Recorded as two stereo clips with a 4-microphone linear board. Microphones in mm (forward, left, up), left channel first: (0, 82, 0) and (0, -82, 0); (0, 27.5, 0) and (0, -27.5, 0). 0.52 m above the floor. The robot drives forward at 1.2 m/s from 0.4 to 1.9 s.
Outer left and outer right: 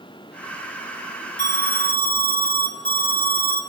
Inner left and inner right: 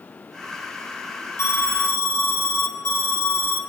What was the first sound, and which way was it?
An alarm, 55° left (ahead or behind).